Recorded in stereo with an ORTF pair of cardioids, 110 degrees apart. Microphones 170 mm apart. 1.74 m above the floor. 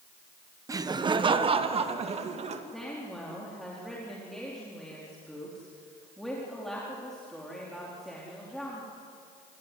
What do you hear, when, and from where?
0.7 s laughter: 20° right, 1.3 m; by 2.6 s 40° right, 3 m
2.7 s a woman speaking: straight ahead, 4.5 m